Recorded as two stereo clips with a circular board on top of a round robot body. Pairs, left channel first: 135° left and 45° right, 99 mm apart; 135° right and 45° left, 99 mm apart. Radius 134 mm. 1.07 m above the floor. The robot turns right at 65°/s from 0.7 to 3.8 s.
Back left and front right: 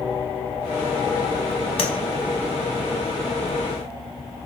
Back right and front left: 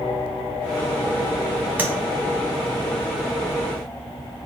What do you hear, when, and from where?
1.8 s tapping: 115° left, 0.7 m; by 1.9 s 125° left, 0.7 m